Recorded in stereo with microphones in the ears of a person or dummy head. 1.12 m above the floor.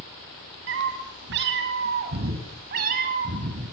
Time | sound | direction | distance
0.7 | a cat meowing | 70° right (ahead or behind) | 5 m